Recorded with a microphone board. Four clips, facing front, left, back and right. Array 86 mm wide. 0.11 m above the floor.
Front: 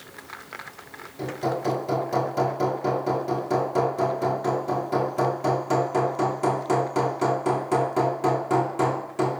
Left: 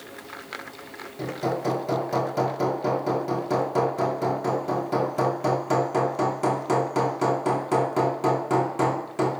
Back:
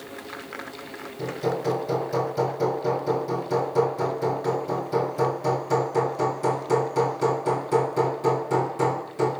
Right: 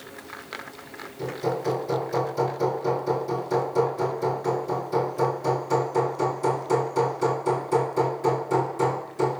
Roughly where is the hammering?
Ahead left.